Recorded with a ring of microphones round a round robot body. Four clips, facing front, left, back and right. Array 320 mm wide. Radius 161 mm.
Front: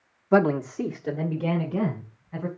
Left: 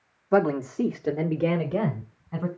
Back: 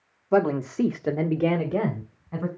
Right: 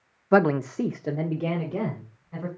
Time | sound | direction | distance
0.3 | a man speaking | 65° right | 1.0 m